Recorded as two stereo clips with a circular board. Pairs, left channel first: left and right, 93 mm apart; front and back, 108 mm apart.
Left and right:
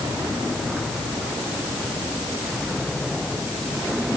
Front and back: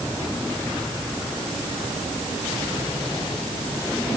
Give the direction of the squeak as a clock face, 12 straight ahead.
I don't hear a squeak.